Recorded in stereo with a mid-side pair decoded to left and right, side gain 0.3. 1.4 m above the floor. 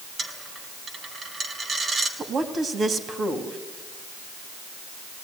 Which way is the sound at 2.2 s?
65° right.